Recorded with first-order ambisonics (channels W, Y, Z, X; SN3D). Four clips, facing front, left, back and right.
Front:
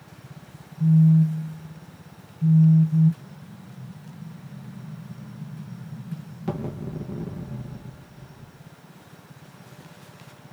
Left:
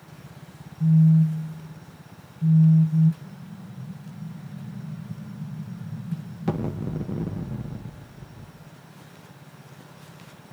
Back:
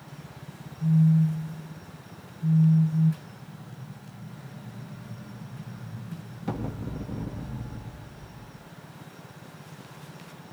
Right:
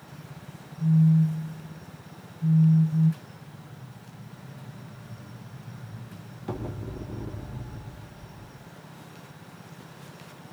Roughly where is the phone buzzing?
Ahead left.